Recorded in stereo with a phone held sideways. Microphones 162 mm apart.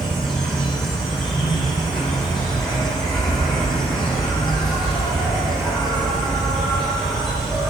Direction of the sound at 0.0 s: Centre (ahead or behind).